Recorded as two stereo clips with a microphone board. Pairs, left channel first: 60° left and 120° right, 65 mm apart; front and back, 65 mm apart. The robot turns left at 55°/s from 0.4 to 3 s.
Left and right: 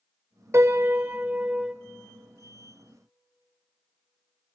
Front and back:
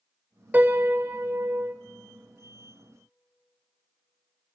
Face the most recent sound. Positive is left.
turn(degrees=95)